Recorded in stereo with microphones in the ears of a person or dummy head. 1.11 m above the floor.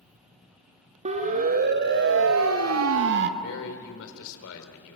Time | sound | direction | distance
1.1 | a siren | 40° right (ahead or behind) | 2 m
3.4 | a man speaking | 80° left | 3 m